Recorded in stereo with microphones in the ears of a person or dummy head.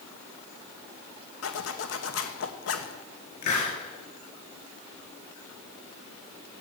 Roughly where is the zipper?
Left.